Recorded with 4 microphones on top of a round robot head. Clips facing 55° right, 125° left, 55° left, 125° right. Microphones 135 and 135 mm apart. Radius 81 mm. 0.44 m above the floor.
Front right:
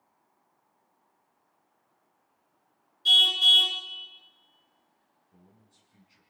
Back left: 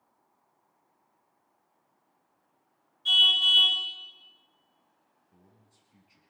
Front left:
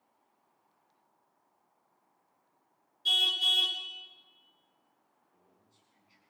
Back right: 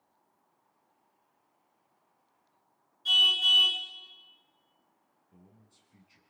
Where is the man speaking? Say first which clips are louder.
Front right 2 dB, back right 9 dB; 155° right, 5.5 m.